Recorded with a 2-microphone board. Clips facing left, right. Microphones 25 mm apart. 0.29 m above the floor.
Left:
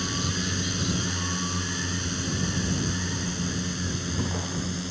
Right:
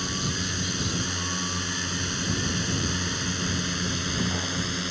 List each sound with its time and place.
0.0 s a drone: centre (ahead or behind); by 4.9 s 30° right (ahead or behind)